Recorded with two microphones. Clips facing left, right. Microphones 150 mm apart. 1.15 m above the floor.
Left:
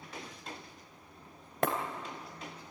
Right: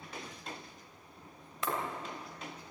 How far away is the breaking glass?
About 3 m.